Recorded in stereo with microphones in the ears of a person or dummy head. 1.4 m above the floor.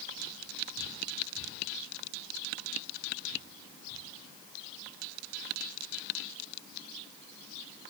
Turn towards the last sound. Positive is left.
No sound to turn to.